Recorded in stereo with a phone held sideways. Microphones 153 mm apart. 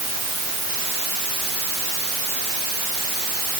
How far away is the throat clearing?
I don't hear throat clearing.